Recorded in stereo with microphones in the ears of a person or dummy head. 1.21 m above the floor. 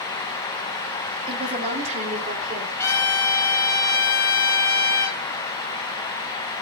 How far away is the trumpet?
About 4.5 m.